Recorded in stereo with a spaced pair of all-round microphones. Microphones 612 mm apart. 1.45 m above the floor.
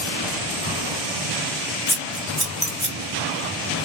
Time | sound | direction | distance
1.9 | scissors | 30° left (ahead or behind) | 1.5 m